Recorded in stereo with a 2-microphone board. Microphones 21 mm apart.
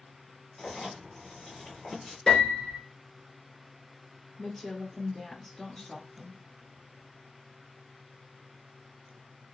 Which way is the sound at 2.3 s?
15° left (ahead or behind).